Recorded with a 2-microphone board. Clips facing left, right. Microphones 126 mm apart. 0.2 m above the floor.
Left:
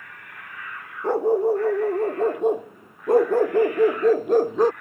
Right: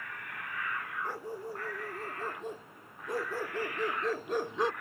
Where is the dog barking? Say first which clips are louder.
Left 25 dB; 75° left (ahead or behind); by 4.7 s 45° left (ahead or behind).